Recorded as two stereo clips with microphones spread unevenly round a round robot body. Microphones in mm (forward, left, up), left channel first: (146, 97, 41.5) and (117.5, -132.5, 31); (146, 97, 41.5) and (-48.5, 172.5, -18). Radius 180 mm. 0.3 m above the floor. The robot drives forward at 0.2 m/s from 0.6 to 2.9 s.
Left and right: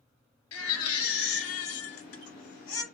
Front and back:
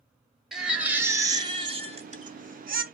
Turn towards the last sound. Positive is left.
turn(degrees=120)